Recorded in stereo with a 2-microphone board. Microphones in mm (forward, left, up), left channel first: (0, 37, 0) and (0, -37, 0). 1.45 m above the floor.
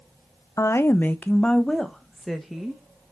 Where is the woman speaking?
45° left (ahead or behind), 0.7 m; by 3.1 s 5° right (ahead or behind), 2.0 m.